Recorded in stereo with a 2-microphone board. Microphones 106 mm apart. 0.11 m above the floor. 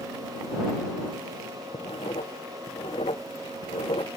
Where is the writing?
65° left (ahead or behind).